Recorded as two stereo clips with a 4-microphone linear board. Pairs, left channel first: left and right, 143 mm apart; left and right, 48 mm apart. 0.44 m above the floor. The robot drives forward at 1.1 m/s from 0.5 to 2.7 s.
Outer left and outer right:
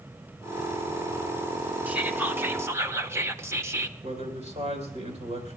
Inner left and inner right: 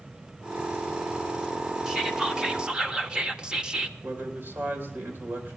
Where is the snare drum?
No snare drum in this recording.